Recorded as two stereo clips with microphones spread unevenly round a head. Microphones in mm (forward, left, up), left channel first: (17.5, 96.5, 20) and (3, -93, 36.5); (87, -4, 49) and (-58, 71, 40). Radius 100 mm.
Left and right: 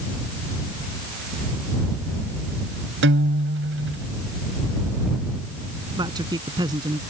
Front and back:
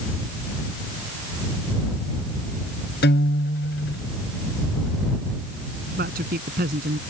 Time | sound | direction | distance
3.0 | a guitar | 65° right | ?
6.0 | a man speaking | 165° right | ?